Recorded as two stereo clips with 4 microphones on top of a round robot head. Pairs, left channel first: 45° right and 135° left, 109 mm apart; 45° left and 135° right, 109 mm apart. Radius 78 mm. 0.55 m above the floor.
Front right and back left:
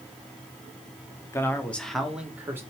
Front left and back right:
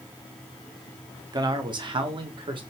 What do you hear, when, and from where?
1.3 s a man speaking: 100° right, 1.2 m; by 2.6 s 160° right, 1.4 m